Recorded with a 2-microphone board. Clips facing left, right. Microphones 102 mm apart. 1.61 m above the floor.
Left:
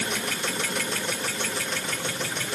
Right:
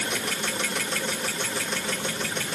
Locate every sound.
Only background noise.